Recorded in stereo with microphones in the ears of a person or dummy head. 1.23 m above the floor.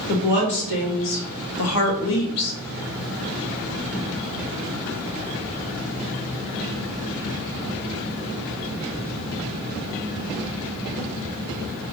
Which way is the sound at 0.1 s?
60° left (ahead or behind).